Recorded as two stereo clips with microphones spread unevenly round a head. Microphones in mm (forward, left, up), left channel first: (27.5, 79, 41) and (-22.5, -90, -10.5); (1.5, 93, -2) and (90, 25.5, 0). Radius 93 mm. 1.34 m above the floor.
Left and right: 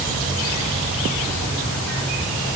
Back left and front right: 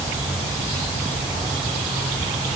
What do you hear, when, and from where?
Only background noise.